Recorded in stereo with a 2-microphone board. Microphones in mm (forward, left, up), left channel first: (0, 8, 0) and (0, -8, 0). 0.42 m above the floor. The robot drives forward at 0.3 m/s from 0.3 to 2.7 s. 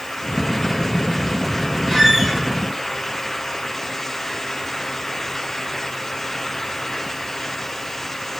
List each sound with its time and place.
1.9 s a squeak: centre (ahead or behind), 2 m